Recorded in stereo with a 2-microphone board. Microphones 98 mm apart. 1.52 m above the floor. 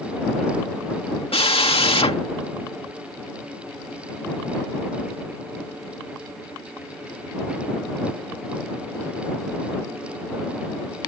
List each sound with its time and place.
1.3 s a drill: 75° left (ahead or behind)